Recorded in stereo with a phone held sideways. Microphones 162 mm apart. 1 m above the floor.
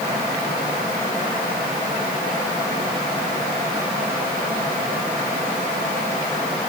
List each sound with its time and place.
Only background noise.